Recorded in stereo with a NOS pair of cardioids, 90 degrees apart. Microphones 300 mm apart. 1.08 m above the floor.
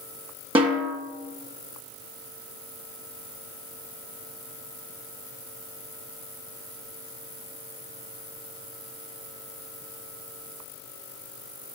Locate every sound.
0.6 s a snare drum: 20° right, 1.8 m